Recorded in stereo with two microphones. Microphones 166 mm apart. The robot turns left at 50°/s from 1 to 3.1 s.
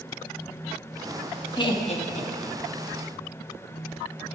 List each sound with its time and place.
1.6 s laughter: 25° left (ahead or behind), 1.4 m; by 2.8 s 45° left (ahead or behind), 1.4 m